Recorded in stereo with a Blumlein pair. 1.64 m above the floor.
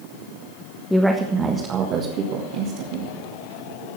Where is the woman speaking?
5° left, 1.4 m; by 3.1 s 50° right, 3 m.